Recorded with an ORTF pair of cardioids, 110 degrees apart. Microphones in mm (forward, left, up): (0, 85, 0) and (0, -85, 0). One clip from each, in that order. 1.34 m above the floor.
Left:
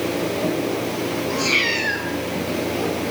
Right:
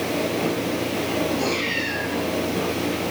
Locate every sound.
1.3 s a cat meowing: 65° left, 3 m